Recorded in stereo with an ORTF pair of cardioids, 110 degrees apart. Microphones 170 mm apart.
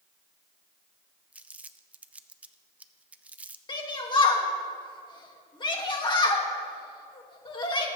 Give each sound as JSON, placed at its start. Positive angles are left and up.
{"t": 1.3, "sound": "crumpling", "azimuth_deg": -10, "distance_m": 0.5}
{"t": 3.7, "sound": "a shout", "azimuth_deg": 30, "distance_m": 2.5}